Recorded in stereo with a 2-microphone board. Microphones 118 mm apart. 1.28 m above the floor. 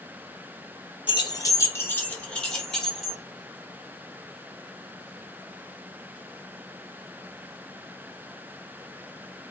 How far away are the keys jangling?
About 0.6 m.